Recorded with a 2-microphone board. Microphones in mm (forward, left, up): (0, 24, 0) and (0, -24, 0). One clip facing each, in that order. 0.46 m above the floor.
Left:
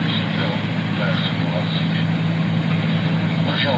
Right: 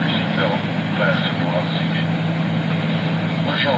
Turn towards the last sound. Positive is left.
turn(degrees=-10)  # may be behind; listen again after turning